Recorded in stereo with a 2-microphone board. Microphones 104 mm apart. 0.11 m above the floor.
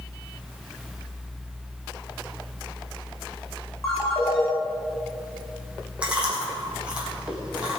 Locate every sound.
3.8 s a ringtone: 30° left (ahead or behind), 3.5 m
6.0 s chewing: 10° right (ahead or behind), 5.5 m